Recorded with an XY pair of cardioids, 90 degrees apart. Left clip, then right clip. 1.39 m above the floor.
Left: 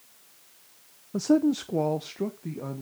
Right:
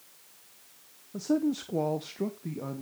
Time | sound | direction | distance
1.1 | a man speaking | 60° left | 0.5 m